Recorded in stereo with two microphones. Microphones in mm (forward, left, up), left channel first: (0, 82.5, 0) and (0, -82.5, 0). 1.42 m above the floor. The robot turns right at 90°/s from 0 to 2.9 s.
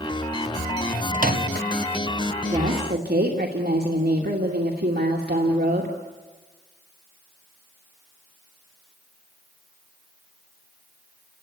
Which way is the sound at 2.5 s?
140° right.